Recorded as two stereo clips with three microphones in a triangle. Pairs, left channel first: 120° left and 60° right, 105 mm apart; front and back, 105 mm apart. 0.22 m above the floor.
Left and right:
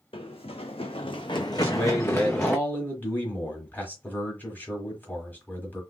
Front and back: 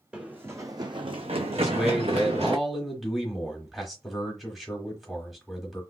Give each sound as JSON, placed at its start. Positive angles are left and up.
{"t": 0.1, "sound": "running footsteps", "azimuth_deg": 100, "distance_m": 0.7}
{"t": 1.6, "sound": "a man speaking", "azimuth_deg": 90, "distance_m": 1.2}